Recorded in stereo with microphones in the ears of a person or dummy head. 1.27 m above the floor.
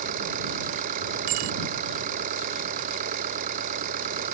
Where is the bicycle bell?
35° right (ahead or behind).